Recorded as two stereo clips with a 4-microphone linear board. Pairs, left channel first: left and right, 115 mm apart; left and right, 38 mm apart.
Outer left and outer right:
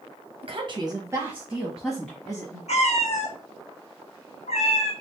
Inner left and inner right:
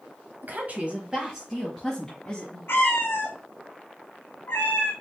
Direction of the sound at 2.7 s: 65° left (ahead or behind).